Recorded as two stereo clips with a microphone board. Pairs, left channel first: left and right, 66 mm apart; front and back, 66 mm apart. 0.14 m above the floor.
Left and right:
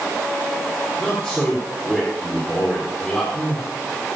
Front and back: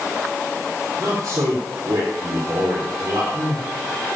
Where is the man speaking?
160° left, 4.5 m.